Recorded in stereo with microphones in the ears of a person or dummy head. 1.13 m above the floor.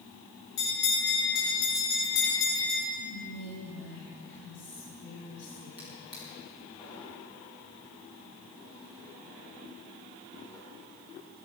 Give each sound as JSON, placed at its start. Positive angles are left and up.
{"t": 0.6, "sound": "a bell", "side_deg": 65, "distance_m": 6.5}
{"t": 3.0, "sound": "whispering", "side_deg": 65, "distance_m": 3.5}
{"t": 5.8, "sound": "a drawer", "side_deg": 30, "distance_m": 5.5}